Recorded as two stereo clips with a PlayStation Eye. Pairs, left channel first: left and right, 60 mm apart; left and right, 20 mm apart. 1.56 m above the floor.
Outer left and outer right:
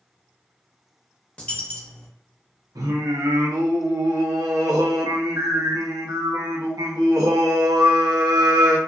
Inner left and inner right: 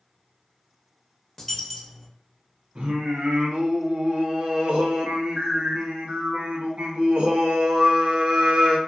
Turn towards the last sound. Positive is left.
turn(degrees=-70)  # may be behind; listen again after turning